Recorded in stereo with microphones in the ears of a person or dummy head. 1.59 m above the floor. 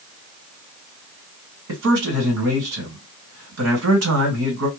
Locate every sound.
1.7 s a man speaking: 75° right (ahead or behind), 1.4 m